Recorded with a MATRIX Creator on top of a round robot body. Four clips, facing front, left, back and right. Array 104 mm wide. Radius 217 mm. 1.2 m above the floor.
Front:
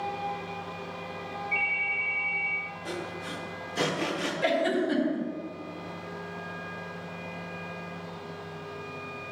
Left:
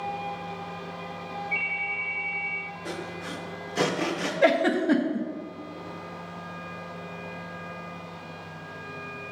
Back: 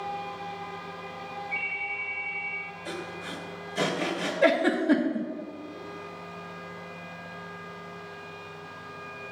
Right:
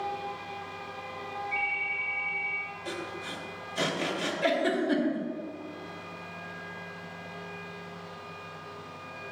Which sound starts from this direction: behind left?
A giggle, at 4.4 s.